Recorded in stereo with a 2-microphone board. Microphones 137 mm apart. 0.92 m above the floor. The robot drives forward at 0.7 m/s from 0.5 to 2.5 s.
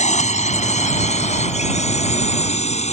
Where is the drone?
60° left (ahead or behind); by 2.9 s 55° left (ahead or behind).